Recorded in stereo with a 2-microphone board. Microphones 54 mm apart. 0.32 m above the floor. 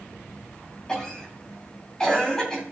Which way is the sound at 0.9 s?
10° left (ahead or behind).